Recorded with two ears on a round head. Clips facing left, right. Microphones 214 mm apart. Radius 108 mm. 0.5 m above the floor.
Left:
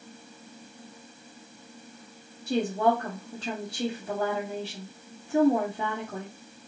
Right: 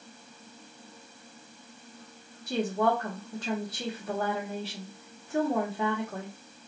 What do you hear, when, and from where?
2.5 s a woman speaking: 25° left (ahead or behind), 1.3 m